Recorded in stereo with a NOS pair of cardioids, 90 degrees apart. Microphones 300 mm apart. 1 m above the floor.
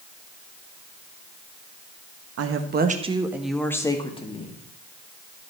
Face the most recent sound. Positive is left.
turn(degrees=25)